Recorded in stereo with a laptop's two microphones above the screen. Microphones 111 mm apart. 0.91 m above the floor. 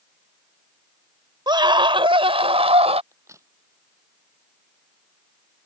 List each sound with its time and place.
1.5 s a scream: 45° right (ahead or behind); by 3.0 s 75° right (ahead or behind)
3.1 s a crack: 30° right (ahead or behind)